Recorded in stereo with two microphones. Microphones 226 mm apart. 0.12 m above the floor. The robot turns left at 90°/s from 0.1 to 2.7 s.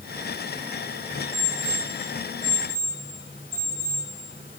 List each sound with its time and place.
1.3 s an alarm clock: 35° right (ahead or behind), 6.5 m; by 4.0 s 20° right (ahead or behind), 6.5 m